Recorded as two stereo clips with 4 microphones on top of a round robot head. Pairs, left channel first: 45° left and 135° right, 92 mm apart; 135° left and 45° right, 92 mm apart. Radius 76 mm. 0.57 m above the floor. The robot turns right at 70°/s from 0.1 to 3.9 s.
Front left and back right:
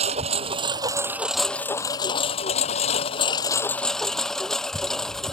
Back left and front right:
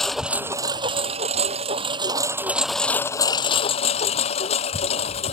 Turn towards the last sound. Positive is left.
turn(degrees=130)